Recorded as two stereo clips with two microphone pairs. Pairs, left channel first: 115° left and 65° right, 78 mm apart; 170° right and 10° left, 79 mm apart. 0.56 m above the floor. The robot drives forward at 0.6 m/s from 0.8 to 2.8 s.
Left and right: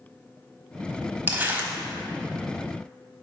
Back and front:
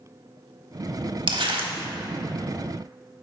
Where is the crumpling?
Straight ahead, 1.0 m.